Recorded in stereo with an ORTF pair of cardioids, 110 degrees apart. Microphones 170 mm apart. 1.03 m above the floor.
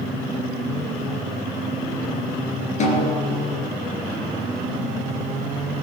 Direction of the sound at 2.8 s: 45° left.